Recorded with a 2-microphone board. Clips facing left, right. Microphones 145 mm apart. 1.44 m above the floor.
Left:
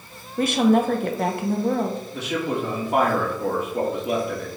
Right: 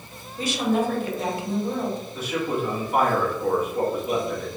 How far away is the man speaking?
About 1.4 m.